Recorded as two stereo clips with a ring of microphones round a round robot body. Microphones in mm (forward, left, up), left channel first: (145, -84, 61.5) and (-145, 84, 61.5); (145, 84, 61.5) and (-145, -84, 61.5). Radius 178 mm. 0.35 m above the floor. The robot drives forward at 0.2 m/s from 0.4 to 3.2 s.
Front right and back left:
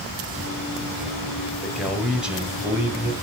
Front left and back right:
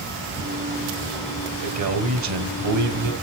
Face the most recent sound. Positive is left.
turn(degrees=-130)